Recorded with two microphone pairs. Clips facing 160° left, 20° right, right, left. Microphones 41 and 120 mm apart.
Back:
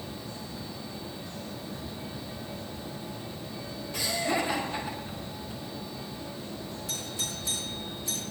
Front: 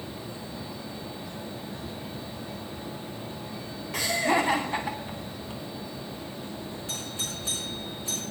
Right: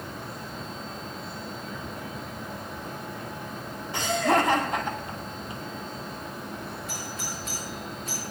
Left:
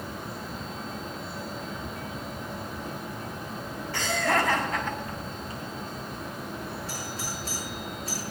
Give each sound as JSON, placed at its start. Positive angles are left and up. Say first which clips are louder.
{"t": 3.9, "sound": "laughter", "louder": "front 5 dB, right 3 dB", "azimuth_deg": -25, "distance_m": 2.5}
{"t": 6.9, "sound": "a doorbell", "louder": "even, left 1 dB", "azimuth_deg": 35, "distance_m": 3.5}